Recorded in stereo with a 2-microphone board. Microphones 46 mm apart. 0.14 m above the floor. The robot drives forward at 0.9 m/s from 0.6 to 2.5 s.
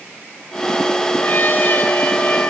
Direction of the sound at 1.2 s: 50° left (ahead or behind).